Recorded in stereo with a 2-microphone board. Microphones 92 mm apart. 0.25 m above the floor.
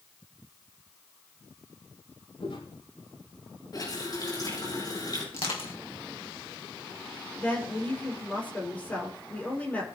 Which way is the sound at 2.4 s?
80° left.